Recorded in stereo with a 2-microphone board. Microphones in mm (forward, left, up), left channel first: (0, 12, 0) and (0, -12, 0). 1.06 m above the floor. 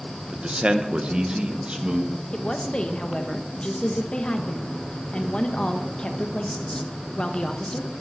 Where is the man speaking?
40° right (ahead or behind), 1.0 m; by 2.2 s 35° right (ahead or behind), 1.9 m.